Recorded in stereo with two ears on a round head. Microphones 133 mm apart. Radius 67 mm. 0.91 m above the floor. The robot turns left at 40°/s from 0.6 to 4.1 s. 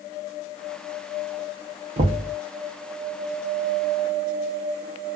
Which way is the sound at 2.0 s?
45° right (ahead or behind).